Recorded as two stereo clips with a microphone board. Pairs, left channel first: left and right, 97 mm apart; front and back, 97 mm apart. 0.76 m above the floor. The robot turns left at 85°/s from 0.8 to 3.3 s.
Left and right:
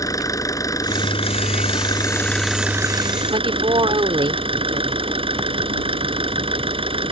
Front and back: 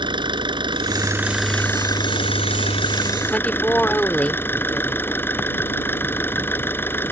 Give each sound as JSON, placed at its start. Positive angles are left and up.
{"t": 0.0, "sound": "an engine running", "azimuth_deg": 145}
{"t": 3.3, "sound": "a woman speaking", "azimuth_deg": -75}